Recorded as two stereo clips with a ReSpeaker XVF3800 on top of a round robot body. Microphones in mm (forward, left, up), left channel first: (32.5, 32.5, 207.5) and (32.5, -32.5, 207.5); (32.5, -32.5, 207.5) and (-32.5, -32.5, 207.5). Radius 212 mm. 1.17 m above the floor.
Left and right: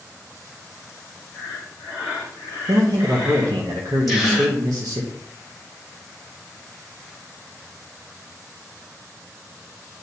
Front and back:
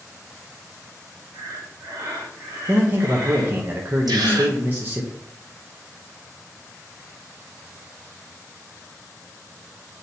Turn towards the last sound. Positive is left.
turn(degrees=180)